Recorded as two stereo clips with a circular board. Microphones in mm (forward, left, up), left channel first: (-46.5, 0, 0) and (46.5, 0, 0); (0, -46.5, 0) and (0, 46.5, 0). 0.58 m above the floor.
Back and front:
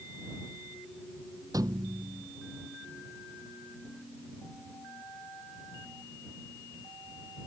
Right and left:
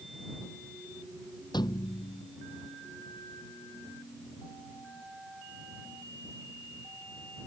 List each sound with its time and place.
1.5 s a thud: 50° right